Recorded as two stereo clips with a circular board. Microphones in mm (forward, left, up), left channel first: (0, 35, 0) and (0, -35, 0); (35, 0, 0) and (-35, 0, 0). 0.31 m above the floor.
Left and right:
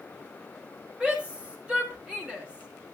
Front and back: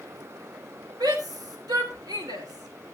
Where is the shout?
165° right, 4.5 m.